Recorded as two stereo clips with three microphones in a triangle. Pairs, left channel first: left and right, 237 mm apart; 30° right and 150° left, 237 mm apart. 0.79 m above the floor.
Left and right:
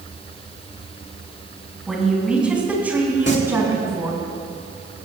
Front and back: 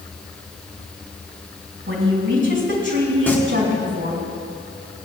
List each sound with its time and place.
1.9 s a woman speaking: straight behind, 5 m; by 4.2 s 165° right, 6.5 m
3.3 s singing: 50° left, 1.8 m